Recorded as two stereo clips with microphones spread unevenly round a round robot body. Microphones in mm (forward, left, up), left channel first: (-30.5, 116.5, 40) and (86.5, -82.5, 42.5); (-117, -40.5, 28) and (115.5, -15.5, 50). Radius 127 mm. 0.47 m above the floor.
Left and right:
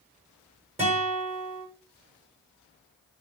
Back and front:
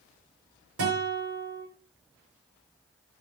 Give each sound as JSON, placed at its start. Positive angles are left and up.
{"t": 0.8, "sound": "a guitar", "azimuth_deg": 0, "distance_m": 5.5}